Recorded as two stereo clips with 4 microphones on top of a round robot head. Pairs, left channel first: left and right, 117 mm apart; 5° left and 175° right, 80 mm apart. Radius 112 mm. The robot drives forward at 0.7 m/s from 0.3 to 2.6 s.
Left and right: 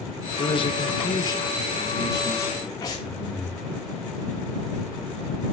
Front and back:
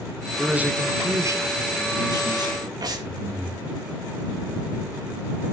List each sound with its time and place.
0.4 s a man speaking: 105° left, 0.9 m; by 2.7 s 160° left, 2.0 m
2.8 s breathing: 150° left, 2 m